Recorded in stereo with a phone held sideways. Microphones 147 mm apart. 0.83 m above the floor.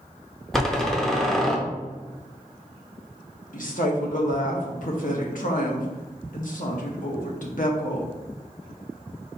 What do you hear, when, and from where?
0.5 s a door slam: centre (ahead or behind), 0.7 m
3.5 s a woman speaking: 65° left (ahead or behind), 1.1 m